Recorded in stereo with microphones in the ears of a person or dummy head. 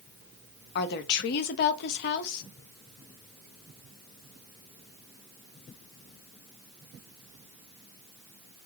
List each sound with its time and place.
0.8 s a woman speaking: 60° left (ahead or behind), 0.6 m